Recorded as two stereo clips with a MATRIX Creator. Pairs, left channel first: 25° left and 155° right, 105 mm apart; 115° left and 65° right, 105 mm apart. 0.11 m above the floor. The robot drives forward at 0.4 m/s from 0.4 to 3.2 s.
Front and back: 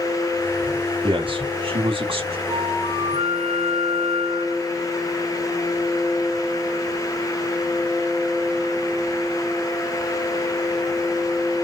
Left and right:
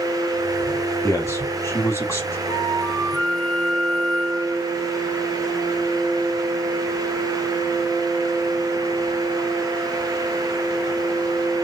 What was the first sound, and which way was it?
A man speaking, 175° left.